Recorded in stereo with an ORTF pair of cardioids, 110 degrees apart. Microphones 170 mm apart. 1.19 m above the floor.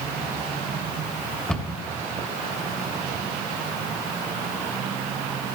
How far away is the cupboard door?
About 2 m.